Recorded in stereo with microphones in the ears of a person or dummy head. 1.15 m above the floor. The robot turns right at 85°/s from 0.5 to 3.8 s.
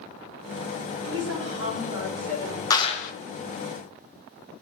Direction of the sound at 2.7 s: 20° left.